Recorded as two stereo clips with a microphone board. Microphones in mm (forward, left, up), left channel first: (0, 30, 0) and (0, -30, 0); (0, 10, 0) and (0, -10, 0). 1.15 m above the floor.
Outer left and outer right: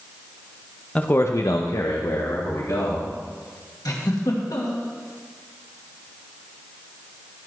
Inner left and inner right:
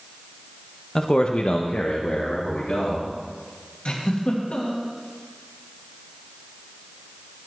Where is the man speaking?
20° left (ahead or behind), 0.7 m; by 3.1 s 55° left (ahead or behind), 2 m.